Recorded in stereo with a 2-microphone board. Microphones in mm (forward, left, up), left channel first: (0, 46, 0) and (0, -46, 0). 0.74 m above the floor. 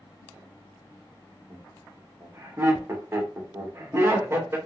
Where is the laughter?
25° right (ahead or behind), 1.2 m.